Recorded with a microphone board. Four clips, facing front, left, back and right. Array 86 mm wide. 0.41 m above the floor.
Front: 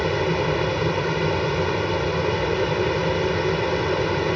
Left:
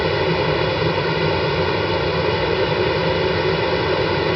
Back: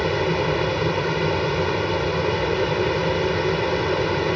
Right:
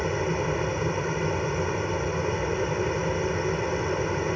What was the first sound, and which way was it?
An aircraft, 95° left.